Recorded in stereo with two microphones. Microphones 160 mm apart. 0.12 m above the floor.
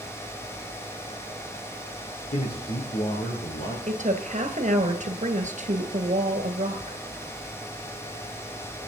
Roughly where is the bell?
No bell in this recording.